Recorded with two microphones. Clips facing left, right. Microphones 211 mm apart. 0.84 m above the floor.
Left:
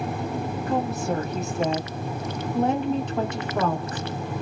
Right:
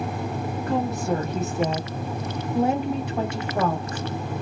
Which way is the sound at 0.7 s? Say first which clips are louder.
Right 2 dB; centre (ahead or behind).